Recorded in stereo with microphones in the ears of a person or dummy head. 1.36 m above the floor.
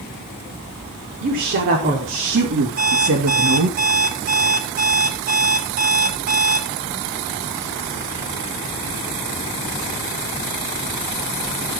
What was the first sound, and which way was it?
A woman speaking, 50° right (ahead or behind).